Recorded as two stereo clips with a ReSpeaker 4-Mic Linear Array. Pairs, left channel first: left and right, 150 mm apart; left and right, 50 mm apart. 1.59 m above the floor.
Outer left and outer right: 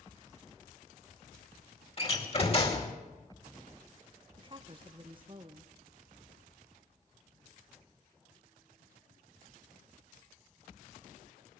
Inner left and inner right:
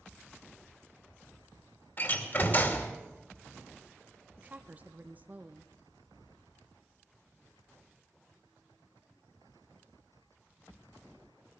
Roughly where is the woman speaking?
Right.